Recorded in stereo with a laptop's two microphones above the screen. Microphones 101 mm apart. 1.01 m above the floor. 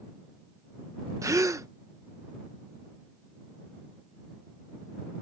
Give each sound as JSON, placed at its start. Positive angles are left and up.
{"t": 1.2, "sound": "a gasp", "side_deg": -30}